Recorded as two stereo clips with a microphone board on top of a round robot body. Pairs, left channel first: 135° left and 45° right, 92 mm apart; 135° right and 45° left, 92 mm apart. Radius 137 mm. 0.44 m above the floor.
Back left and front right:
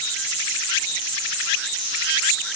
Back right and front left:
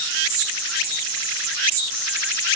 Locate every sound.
Only background noise.